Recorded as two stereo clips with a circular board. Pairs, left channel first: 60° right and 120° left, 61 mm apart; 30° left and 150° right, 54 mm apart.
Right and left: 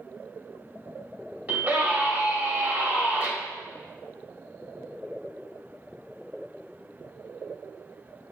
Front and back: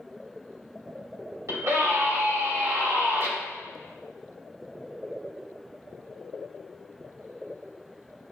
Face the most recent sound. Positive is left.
turn(degrees=-175)